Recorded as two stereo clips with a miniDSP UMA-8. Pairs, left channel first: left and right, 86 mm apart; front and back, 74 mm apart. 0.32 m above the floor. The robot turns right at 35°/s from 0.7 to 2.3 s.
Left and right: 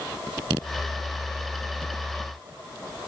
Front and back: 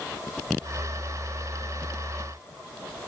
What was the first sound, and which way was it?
Only background noise.